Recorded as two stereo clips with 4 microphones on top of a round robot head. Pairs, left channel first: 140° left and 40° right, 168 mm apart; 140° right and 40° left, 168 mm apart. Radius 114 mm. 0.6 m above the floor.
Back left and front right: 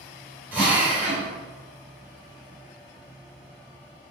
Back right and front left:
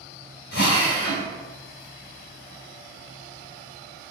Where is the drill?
120° right, 1.8 m.